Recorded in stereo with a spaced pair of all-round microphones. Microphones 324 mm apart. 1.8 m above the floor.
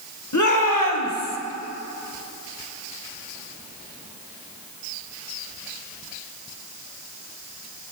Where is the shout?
60° left (ahead or behind), 1.7 m; by 1.4 s 75° left (ahead or behind), 1.8 m.